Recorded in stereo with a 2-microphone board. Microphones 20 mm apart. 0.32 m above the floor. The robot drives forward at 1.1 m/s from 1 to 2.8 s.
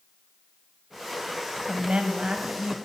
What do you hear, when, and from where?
1.7 s a woman speaking: 50° right (ahead or behind), 1.8 m; by 2.8 s 40° right (ahead or behind), 2 m